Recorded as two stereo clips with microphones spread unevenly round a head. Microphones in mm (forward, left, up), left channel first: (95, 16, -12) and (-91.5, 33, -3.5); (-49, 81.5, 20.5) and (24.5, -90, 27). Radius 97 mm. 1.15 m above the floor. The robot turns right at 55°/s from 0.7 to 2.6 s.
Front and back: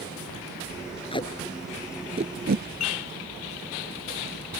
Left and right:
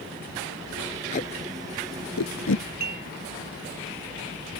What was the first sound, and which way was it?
Tape being pulled, 55° left.